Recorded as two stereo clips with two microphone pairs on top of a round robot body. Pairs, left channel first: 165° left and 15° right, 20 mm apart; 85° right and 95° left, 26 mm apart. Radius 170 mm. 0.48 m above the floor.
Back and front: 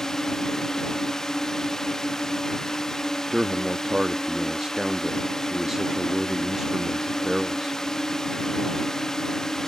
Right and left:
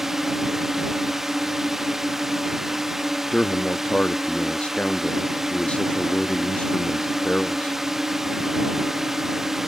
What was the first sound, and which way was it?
A drone, 160° left.